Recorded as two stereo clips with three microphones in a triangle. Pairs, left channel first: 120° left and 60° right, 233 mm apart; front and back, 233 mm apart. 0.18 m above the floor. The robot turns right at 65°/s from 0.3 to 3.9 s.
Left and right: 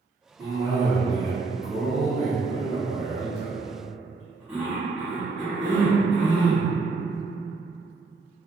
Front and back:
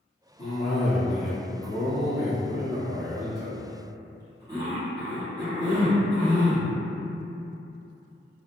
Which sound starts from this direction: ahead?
A cough, at 0.4 s.